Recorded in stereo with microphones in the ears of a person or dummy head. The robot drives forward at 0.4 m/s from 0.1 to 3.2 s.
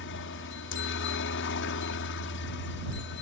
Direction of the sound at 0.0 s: 60° left (ahead or behind).